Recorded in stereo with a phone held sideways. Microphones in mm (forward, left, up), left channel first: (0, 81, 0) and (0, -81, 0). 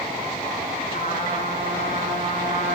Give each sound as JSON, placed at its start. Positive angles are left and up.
{"t": 0.9, "sound": "a trumpet", "side_deg": 60, "distance_m": 6.5}